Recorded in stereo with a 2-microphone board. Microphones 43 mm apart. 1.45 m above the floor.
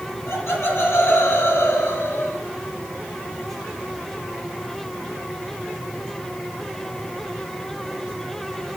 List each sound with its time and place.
0.3 s laughter: 85° left, 3.5 m; by 2.4 s 75° left (ahead or behind), 2 m